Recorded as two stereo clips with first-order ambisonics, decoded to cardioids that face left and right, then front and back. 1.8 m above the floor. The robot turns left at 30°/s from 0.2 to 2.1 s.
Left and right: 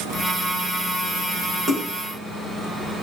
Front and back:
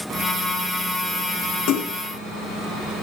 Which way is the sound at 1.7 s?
15° right.